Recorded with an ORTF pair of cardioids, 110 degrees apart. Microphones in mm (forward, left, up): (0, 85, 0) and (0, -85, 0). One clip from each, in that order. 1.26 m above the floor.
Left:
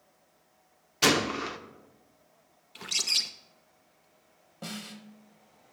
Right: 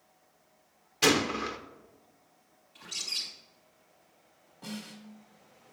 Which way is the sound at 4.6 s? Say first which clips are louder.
Left 3 dB; 50° left.